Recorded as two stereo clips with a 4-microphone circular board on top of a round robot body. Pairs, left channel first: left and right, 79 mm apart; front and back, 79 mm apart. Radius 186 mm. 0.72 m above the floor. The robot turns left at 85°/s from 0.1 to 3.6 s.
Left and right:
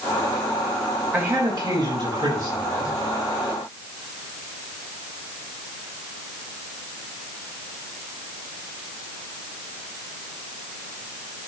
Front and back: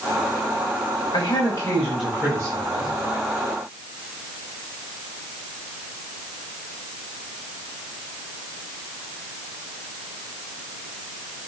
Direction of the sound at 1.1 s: 20° right.